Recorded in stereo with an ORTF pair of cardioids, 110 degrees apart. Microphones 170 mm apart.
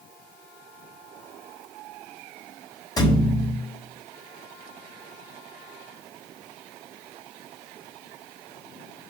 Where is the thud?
25° left, 4 m.